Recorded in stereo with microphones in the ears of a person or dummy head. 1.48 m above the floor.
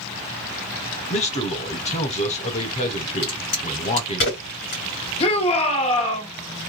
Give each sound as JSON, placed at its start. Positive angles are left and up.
{"t": 1.1, "sound": "a man speaking", "side_deg": 30, "distance_m": 0.7}
{"t": 3.2, "sound": "a crack", "side_deg": 50, "distance_m": 1.8}
{"t": 5.2, "sound": "a shout", "side_deg": 35, "distance_m": 0.9}